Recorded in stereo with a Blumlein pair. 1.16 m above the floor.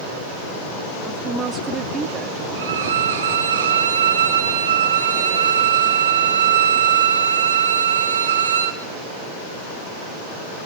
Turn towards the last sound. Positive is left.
turn(degrees=-65)